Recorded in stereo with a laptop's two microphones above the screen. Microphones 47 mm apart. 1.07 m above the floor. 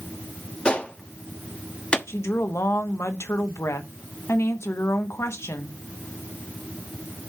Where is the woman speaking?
70° left (ahead or behind), 0.9 m.